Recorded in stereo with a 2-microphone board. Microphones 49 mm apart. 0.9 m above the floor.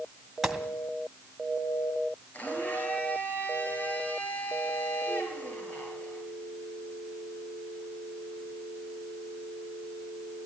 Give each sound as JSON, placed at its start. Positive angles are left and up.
{"t": 0.4, "sound": "a gunshot", "side_deg": -10, "distance_m": 2.0}
{"t": 2.3, "sound": "a blender", "side_deg": 35, "distance_m": 8.5}